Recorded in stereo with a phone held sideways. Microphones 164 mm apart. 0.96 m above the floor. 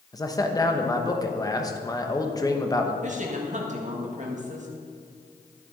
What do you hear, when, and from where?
0.1 s a man speaking: 20° left (ahead or behind), 1.0 m
3.0 s a woman speaking: 50° right (ahead or behind), 1.6 m